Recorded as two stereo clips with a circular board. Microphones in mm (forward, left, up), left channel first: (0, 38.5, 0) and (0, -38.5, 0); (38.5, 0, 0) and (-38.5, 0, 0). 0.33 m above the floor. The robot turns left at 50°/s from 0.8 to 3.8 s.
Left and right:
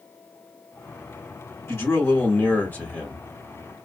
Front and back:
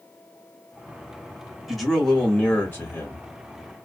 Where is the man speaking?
100° left, 1.2 m; by 3.3 s 20° left, 1.2 m.